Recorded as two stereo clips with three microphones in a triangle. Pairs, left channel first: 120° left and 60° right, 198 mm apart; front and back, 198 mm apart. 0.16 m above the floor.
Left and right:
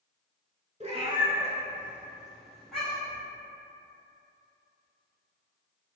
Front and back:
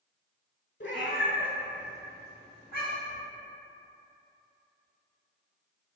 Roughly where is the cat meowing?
Ahead.